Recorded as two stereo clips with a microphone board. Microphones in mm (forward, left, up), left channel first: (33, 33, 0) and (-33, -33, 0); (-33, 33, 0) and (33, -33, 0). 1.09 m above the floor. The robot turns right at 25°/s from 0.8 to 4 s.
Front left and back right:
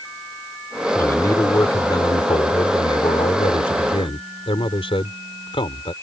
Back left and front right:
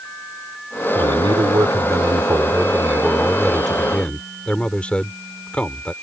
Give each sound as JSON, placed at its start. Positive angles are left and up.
{"t": 0.9, "sound": "a man speaking", "azimuth_deg": -20}